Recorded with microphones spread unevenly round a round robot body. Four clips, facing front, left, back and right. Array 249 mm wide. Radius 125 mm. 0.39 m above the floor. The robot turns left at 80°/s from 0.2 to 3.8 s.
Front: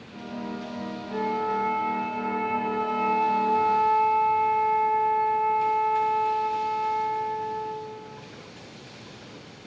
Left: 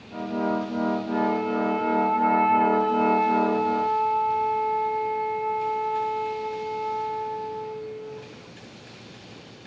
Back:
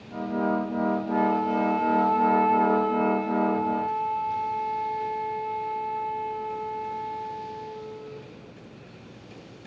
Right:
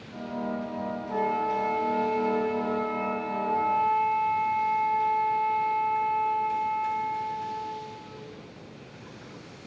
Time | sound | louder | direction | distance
1.1 | a flute | right 2 dB, even | 155° right | 0.9 m